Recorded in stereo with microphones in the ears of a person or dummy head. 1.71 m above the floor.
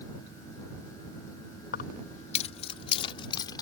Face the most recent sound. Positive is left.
turn(degrees=20)  # may be behind; listen again after turning